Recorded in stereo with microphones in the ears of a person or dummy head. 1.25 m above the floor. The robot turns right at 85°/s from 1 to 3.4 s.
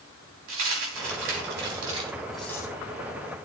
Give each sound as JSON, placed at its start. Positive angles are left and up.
{"t": 0.5, "sound": "a dropped coin", "side_deg": -65, "distance_m": 3.5}